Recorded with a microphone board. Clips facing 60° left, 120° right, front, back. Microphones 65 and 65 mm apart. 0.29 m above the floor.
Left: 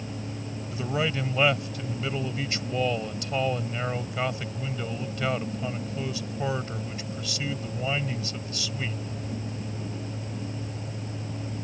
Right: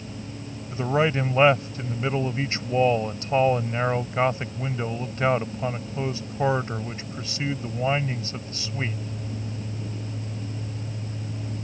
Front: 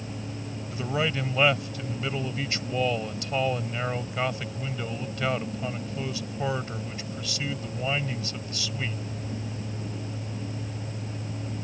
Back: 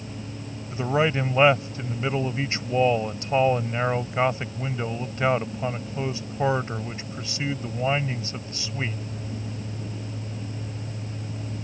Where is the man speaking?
140° right.